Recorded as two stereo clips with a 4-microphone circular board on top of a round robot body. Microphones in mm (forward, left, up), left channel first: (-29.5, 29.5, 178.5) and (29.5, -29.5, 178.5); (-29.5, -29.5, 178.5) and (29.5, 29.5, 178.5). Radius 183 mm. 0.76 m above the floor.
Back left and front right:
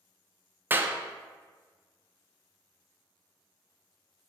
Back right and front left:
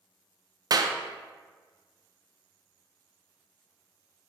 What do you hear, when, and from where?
0.7 s a clap: 15° left, 0.5 m